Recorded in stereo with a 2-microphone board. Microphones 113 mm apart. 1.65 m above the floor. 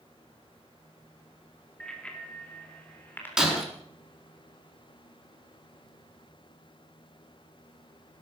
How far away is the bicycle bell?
About 2.5 m.